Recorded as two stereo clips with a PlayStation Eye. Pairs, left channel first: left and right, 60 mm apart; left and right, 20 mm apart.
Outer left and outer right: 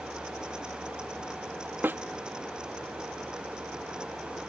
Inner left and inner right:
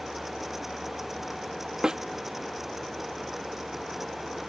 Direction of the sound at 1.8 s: 35° right (ahead or behind).